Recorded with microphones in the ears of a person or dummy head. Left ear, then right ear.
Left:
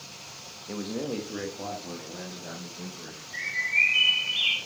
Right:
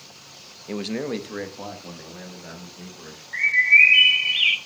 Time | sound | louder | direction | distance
0.7 | a man speaking | right 5 dB | 80° right | 0.7 m
3.3 | a bird | right 10 dB | 55° right (ahead or behind) | 0.8 m